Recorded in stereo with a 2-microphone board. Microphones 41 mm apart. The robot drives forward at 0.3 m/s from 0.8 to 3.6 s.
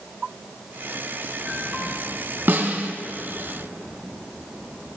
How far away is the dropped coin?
No dropped coin in this recording.